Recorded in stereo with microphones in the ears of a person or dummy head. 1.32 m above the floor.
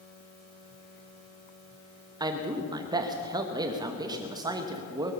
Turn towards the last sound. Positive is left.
turn(degrees=-25)  # may be behind; listen again after turning